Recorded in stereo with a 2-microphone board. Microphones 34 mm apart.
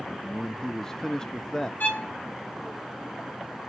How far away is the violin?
About 1.4 m.